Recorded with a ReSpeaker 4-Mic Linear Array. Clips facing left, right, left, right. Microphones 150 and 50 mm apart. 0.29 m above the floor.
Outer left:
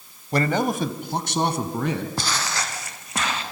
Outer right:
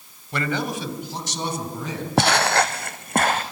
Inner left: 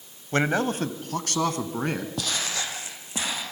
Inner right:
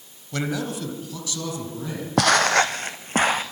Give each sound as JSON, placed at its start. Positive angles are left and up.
{"t": 0.3, "sound": "a man speaking", "side_deg": 40, "distance_m": 1.5}
{"t": 2.2, "sound": "footsteps", "side_deg": -70, "distance_m": 0.8}